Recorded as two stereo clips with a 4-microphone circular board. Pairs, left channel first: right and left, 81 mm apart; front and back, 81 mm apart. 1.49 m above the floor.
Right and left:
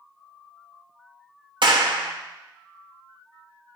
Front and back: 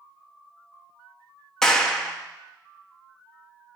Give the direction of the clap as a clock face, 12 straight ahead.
9 o'clock.